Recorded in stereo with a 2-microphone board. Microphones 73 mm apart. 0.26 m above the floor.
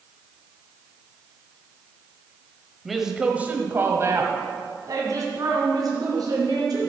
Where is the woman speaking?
Centre (ahead or behind), 1.2 m; by 6.9 s 60° right (ahead or behind), 3.5 m.